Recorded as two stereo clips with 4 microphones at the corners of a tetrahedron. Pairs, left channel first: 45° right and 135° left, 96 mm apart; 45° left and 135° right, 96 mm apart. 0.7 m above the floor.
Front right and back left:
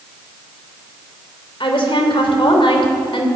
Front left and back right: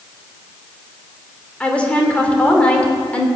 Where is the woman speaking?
30° right, 2.5 m.